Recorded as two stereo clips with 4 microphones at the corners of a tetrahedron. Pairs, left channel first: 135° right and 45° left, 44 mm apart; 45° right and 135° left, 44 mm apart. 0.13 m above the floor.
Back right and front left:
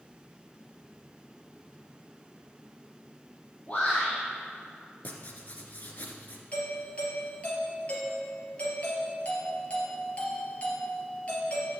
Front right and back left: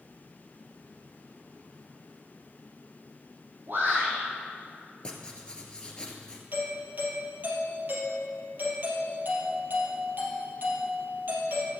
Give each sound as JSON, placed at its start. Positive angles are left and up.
{"t": 3.7, "sound": "a shout", "azimuth_deg": 170, "distance_m": 4.0}
{"t": 5.0, "sound": "writing", "azimuth_deg": -105, "distance_m": 1.7}
{"t": 6.5, "sound": "a doorbell", "azimuth_deg": 170, "distance_m": 3.5}